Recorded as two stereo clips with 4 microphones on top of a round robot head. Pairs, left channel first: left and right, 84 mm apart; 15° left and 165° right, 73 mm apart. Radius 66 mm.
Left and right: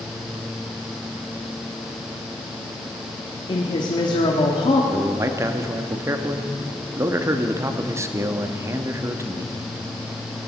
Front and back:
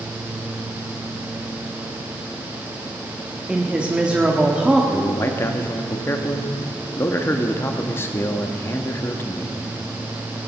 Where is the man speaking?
40° right, 1.2 m.